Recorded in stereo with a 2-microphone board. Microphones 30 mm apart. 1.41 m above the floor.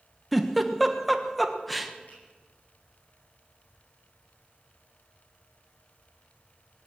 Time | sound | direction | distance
0.3 | a giggle | 5° left (ahead or behind) | 1.2 m
2.1 | a finger snap | 65° left (ahead or behind) | 10 m